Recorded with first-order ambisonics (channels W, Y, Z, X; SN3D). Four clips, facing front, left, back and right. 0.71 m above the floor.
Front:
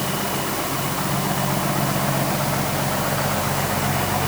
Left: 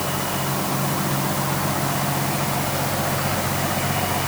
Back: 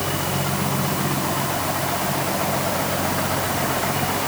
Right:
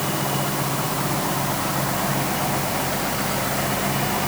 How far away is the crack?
No crack in this recording.